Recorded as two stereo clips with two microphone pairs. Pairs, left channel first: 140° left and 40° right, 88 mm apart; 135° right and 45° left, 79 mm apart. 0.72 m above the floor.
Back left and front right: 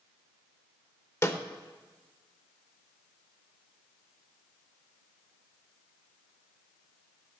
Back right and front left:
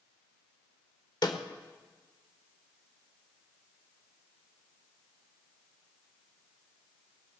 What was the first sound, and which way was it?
A snare drum, 165° right.